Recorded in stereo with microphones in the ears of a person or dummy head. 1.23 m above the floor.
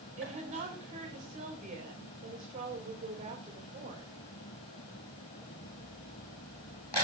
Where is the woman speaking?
45° right (ahead or behind), 4.5 m.